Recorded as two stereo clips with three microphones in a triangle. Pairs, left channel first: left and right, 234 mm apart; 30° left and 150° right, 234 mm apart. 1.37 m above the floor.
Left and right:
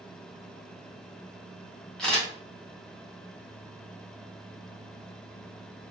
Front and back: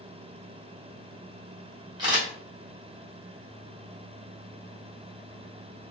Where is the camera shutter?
175° left, 1.0 m.